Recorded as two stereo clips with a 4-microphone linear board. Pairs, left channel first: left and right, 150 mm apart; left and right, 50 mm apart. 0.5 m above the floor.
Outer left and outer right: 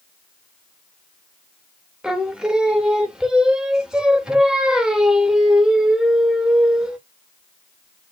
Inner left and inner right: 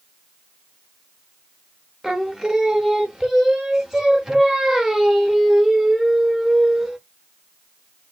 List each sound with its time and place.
2.0 s singing: 5° right (ahead or behind), 0.5 m